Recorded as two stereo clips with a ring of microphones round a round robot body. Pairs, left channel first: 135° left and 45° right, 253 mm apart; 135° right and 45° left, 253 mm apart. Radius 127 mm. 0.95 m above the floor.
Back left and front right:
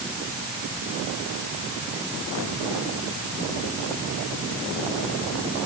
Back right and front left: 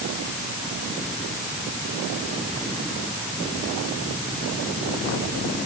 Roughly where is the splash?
No splash in this recording.